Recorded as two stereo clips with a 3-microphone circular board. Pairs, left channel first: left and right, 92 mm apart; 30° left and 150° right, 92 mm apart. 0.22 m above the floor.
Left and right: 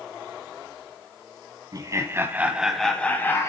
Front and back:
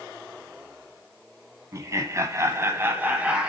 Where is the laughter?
110° right, 1.6 m; by 3.5 s 135° left, 1.6 m.